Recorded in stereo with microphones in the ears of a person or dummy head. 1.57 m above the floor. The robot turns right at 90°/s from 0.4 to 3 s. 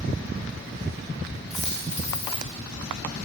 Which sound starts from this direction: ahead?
A dropped coin, at 1.5 s.